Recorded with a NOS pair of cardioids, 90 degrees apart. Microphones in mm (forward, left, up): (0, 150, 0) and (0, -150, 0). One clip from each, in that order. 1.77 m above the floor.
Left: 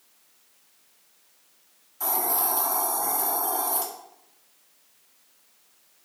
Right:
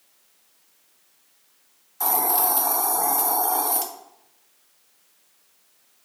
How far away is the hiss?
About 1.4 m.